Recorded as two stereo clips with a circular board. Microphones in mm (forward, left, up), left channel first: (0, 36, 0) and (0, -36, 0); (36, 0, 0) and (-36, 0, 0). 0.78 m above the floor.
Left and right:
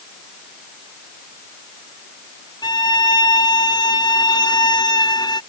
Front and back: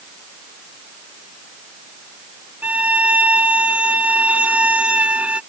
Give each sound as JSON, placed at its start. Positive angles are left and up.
{"t": 2.6, "sound": "a violin", "azimuth_deg": 110}